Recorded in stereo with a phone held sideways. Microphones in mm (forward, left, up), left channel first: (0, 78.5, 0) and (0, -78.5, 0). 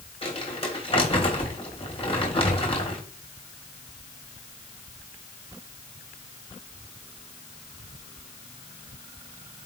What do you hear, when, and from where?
0.2 s crumpling: 40° left (ahead or behind), 3.5 m